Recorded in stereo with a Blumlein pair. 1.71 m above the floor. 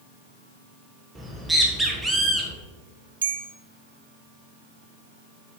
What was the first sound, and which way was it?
A bird, 5° right.